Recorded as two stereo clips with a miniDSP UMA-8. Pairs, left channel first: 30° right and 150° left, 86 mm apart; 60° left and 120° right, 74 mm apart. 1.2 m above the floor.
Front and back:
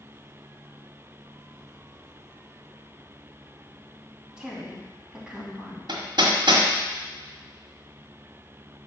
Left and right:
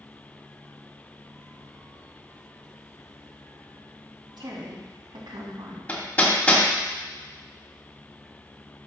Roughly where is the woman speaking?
Behind right.